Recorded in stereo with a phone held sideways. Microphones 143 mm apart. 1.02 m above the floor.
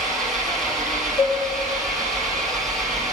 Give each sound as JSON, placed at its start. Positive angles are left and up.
{"t": 0.0, "sound": "an engine running", "side_deg": 0, "distance_m": 3.0}
{"t": 1.2, "sound": "a cowbell", "side_deg": 40, "distance_m": 1.1}